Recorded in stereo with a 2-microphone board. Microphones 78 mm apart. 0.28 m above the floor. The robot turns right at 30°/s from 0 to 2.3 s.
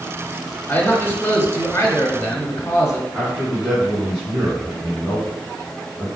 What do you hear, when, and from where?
0.7 s a man speaking: 40° left, 1.1 m; by 3.0 s 90° left, 1.1 m
3.1 s a man speaking: 10° right (ahead or behind), 2 m